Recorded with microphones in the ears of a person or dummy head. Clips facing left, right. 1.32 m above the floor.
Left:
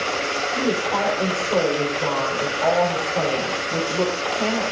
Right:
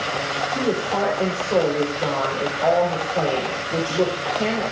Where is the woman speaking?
15° right (ahead or behind), 4 m.